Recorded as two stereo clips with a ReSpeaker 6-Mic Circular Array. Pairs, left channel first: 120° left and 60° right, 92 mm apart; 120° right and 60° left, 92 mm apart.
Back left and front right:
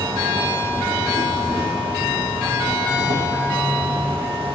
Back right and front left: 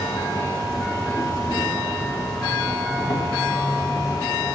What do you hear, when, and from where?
0.0 s an insect: 70° right, 2 m